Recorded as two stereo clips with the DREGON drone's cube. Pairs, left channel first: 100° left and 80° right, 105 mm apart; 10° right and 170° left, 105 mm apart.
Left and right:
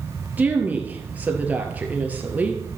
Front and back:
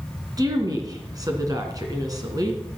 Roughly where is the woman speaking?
Behind right.